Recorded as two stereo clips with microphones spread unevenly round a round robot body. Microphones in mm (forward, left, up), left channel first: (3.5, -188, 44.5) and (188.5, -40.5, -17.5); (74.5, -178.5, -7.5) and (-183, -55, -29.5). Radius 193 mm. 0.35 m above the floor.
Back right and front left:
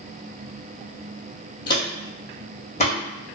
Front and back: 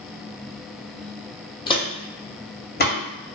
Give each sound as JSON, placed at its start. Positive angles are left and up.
{"t": 1.7, "sound": "footsteps", "azimuth_deg": -100, "distance_m": 0.9}